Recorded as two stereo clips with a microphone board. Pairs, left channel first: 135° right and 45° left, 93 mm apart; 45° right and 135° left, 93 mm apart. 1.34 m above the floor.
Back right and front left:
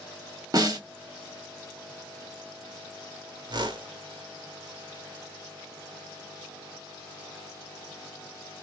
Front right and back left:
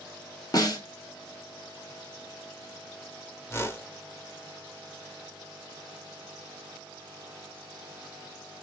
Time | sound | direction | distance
0.5 | a snare drum | straight ahead | 1.1 m
3.5 | a whoosh | 15° left | 1.0 m